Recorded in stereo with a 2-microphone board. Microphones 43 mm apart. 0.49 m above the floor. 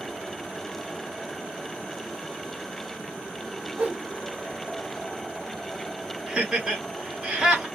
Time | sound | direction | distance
3.8 | a whoosh | 35° right (ahead or behind) | 1.2 m
6.3 | laughter | 20° right (ahead or behind) | 1.4 m